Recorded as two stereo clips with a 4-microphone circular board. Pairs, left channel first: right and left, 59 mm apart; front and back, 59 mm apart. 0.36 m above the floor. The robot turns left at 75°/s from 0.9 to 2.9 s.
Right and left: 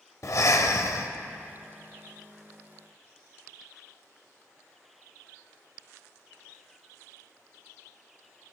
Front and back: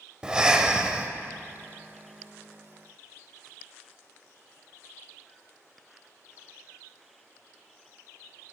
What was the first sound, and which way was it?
Breathing, 105° right.